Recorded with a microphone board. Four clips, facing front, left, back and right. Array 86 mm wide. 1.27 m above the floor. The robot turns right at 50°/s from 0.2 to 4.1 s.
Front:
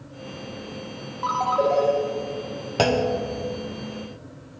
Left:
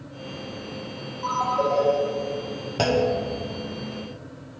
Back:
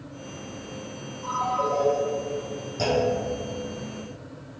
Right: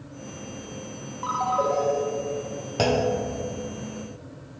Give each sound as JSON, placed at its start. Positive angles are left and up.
{"t": 1.2, "sound": "a ringtone", "azimuth_deg": -20, "distance_m": 0.9}
{"t": 2.8, "sound": "a clunk", "azimuth_deg": 0, "distance_m": 0.7}